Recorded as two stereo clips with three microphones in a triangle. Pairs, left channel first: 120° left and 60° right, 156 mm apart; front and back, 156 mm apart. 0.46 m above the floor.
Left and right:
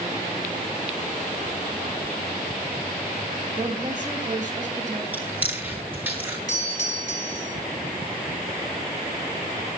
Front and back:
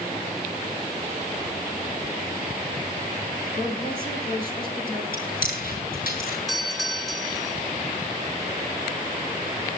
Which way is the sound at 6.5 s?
90° left.